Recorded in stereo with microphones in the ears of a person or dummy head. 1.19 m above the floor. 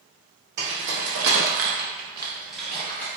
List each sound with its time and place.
0.6 s keys jangling: 55° right (ahead or behind), 1.6 m; by 3.1 s 10° left (ahead or behind), 1.7 m